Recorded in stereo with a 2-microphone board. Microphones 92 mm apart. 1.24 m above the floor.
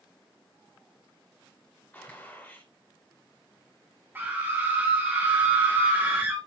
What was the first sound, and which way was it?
A gunshot, 20° left (ahead or behind).